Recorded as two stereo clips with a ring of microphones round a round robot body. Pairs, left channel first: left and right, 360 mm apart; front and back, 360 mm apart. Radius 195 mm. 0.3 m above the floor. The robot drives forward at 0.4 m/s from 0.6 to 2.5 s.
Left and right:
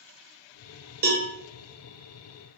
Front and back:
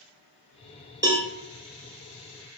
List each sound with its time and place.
1.0 s a cowbell: 115° right, 0.5 m; by 1.3 s 130° right, 0.6 m